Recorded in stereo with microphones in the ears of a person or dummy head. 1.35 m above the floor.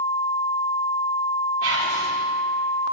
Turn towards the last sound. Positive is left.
turn(degrees=-80)